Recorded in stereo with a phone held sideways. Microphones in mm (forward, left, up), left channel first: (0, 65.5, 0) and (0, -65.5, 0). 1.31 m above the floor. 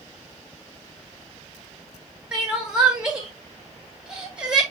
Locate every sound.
2.3 s crying: 5° right (ahead or behind), 4 m